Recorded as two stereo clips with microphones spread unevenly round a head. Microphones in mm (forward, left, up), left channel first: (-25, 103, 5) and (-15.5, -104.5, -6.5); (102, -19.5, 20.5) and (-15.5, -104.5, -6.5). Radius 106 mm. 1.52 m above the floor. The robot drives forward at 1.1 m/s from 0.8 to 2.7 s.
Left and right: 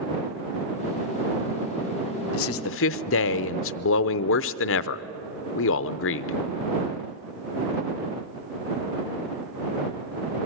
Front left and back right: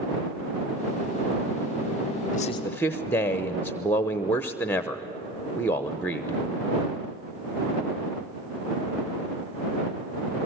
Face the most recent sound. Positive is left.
turn(degrees=110)